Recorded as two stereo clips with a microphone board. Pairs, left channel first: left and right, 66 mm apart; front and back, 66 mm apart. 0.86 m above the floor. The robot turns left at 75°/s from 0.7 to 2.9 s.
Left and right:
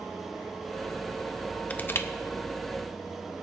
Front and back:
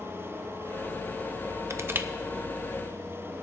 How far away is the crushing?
About 0.6 m.